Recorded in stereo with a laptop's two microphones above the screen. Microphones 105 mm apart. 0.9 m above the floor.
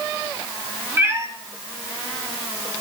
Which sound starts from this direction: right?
A cat meowing, at 1.0 s.